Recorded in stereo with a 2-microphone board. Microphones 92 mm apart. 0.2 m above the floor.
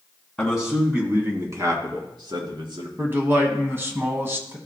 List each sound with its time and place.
0.4 s a man speaking: 5° left (ahead or behind), 2 m; by 2.9 s 60° right (ahead or behind), 3 m
3.0 s a man speaking: 25° right (ahead or behind), 1.4 m